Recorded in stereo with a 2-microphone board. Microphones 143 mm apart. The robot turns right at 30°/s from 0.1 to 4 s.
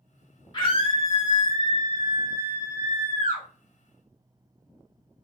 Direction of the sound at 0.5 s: 35° left.